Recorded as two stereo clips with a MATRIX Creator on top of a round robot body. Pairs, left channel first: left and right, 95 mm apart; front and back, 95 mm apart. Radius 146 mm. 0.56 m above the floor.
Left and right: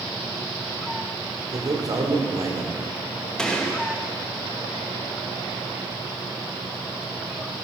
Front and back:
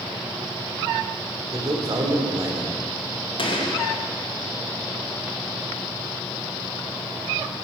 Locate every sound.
1.5 s a man speaking: 135° right, 2.5 m
3.4 s a gunshot: 10° left, 2.5 m